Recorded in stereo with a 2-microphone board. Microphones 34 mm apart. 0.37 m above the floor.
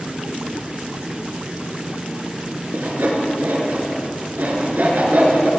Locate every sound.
2.7 s sawing: 75° right (ahead or behind), 3 m